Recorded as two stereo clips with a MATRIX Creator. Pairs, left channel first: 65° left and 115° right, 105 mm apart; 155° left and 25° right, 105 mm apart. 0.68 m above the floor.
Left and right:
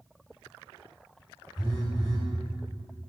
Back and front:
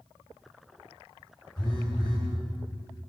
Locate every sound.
1.6 s a phone buzzing: 115° left, 5 m